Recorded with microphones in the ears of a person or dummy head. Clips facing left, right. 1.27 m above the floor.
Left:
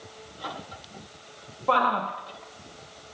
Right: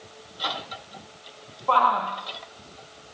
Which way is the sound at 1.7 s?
25° left (ahead or behind).